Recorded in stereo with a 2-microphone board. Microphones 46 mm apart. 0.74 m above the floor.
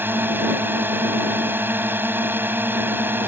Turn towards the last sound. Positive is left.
turn(degrees=-45)  # may be behind; listen again after turning